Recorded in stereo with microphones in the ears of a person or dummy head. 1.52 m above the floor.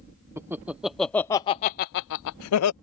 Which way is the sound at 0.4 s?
15° right (ahead or behind).